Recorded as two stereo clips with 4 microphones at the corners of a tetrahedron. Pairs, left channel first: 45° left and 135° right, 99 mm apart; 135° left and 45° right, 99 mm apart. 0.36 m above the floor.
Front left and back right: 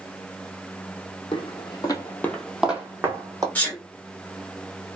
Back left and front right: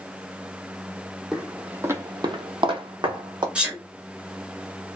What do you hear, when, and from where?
1.3 s footsteps: 40° left, 0.7 m; by 3.5 s 80° right, 0.9 m
3.5 s a sneeze: 5° left, 0.9 m